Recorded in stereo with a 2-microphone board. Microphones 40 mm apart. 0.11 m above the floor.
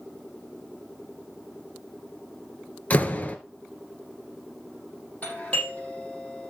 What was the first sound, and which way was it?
A door slam, 40° left (ahead or behind).